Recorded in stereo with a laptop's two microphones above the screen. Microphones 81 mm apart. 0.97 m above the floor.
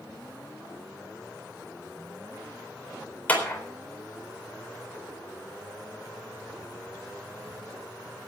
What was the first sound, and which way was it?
A clap, 20° left (ahead or behind).